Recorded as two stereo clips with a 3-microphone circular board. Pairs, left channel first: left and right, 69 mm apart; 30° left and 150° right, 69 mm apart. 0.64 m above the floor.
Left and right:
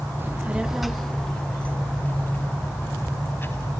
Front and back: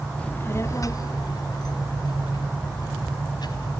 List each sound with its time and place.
0.2 s a child speaking: 40° right, 1.0 m; by 3.7 s 30° left, 4 m